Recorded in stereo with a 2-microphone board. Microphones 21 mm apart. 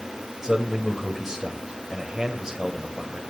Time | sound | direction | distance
0.4 | a man speaking | 15° right (ahead or behind) | 1.7 m